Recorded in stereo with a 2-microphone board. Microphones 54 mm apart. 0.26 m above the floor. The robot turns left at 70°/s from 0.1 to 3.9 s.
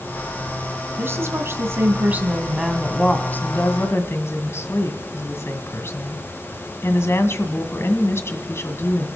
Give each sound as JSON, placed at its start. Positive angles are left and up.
{"t": 1.0, "sound": "a woman speaking", "azimuth_deg": -60, "distance_m": 1.8}